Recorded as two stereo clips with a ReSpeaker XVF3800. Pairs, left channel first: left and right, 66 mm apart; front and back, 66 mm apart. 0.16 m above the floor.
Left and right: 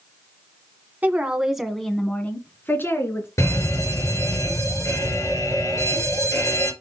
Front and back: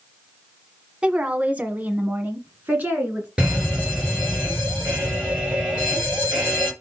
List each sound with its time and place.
1.0 s a woman speaking: 125° right, 1.3 m; by 3.3 s 120° left, 2 m
3.4 s a fire alarm: 105° left, 4.5 m